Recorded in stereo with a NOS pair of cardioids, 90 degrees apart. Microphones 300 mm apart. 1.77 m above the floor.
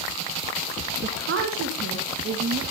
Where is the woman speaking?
45° right, 1.7 m; by 2.6 s 50° right, 4 m.